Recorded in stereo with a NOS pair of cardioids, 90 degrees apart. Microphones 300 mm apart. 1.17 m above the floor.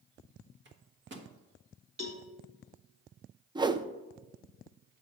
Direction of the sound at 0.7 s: 40° right.